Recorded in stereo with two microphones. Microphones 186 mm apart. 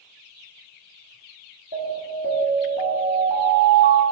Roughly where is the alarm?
Right.